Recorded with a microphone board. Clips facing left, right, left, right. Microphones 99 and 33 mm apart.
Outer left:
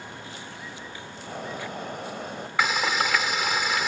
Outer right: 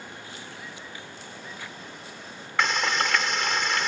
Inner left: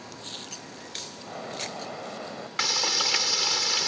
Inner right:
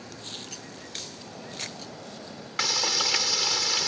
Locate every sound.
1.2 s a bird: 65° left (ahead or behind)
2.6 s frying: 5° left (ahead or behind)